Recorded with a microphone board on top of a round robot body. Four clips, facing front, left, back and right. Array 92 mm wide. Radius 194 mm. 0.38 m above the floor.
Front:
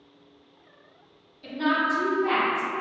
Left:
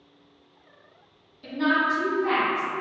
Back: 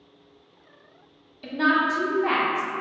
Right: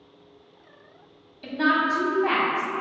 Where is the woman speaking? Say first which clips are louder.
Right 1 dB, back 3 dB; 140° right, 1.1 m.